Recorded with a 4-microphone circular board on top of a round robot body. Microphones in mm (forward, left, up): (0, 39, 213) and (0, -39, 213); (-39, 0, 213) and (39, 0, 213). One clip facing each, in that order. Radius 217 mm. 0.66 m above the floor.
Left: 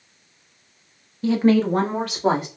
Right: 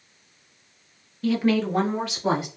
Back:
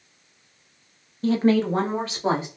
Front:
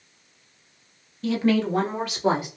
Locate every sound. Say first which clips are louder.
1.2 s a woman speaking: left 4 dB, back 2 dB; 150° left, 0.9 m; by 2.5 s 120° left, 2 m